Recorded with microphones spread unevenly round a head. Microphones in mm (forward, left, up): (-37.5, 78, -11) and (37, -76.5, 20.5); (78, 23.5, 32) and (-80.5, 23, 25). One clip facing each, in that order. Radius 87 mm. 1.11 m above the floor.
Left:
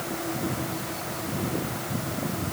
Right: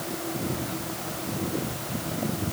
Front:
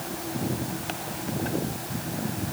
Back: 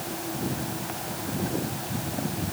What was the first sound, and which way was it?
Only background noise.